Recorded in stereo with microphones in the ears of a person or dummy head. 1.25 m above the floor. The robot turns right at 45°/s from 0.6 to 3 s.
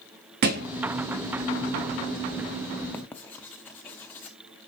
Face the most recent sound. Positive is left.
turn(degrees=15)  # may be behind; listen again after turning